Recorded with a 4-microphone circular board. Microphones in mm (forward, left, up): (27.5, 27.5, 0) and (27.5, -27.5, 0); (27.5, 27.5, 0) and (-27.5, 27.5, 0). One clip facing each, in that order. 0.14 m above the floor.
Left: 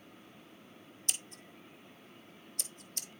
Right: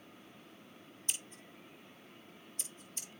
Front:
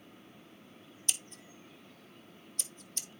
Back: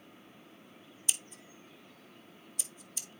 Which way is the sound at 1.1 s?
100° left.